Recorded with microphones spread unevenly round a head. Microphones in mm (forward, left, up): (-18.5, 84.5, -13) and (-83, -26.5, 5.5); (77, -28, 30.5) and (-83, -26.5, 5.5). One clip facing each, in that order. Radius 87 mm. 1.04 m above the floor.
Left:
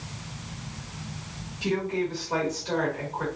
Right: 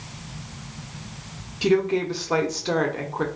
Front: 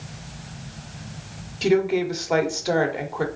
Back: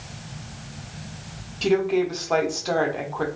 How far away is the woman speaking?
About 0.7 m.